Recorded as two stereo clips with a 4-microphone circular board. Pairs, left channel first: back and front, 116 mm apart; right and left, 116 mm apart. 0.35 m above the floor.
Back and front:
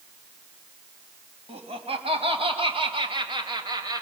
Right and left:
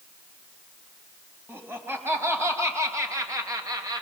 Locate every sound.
1.5 s laughter: 20° left, 3 m; by 4.0 s 45° left, 2 m